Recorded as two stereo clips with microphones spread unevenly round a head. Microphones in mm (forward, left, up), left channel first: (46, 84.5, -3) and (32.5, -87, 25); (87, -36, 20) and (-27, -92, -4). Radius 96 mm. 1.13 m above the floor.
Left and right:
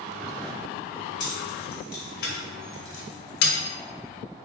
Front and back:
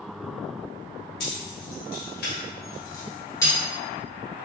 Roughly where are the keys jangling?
Ahead left.